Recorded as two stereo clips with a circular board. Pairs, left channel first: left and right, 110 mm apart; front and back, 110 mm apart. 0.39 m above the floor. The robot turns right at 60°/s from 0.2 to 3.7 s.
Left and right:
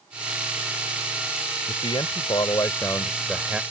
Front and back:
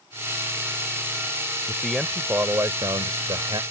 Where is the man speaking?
75° left; by 3.6 s 170° right.